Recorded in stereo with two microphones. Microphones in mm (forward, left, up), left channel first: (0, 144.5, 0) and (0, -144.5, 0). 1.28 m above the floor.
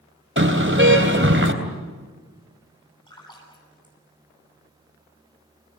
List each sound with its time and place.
0.4 s a car horn: 45° right (ahead or behind), 3.5 m
3.1 s a splash: 15° left (ahead or behind), 9.5 m